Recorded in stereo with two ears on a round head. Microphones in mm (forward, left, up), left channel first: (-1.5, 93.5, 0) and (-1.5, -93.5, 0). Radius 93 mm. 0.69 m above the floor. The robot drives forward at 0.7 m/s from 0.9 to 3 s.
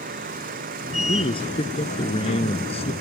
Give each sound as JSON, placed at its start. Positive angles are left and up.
{"t": 0.0, "sound": "an engine running", "side_deg": -45}
{"t": 1.1, "sound": "a man speaking", "side_deg": 25}